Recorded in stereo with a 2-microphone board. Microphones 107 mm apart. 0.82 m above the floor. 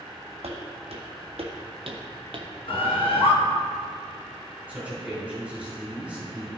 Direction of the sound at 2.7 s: 60° left (ahead or behind).